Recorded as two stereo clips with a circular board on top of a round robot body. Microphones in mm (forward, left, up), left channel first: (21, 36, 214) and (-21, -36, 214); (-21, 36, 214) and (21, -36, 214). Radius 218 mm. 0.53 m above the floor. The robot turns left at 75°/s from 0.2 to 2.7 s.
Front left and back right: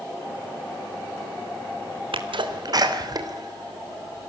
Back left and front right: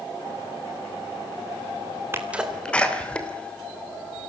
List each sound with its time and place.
2.1 s a sneeze: 120° right, 3 m; by 4.3 s 160° right, 3 m